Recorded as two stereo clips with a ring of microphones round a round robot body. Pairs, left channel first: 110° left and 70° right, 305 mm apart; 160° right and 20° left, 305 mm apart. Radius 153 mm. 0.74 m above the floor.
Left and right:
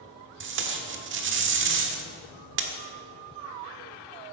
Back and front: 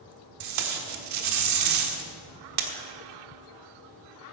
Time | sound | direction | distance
0.4 | tape being pulled | 15° right | 1.3 m